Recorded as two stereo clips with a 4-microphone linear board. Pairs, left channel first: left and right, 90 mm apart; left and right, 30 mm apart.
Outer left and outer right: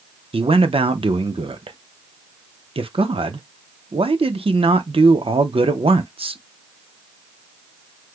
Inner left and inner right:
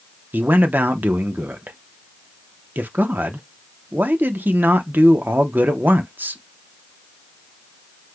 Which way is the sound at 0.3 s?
85° right.